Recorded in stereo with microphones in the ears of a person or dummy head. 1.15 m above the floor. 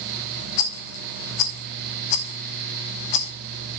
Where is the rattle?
35° left (ahead or behind), 1.0 m.